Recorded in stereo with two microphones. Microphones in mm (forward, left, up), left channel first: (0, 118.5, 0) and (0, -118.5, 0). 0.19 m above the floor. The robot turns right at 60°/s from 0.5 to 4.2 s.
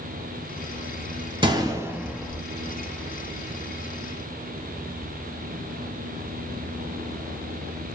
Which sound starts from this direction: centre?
A gunshot, at 1.4 s.